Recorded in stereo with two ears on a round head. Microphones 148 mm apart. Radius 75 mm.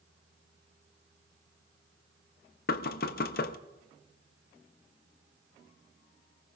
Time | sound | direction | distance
2.7 | knocking | 60° left (ahead or behind) | 0.8 m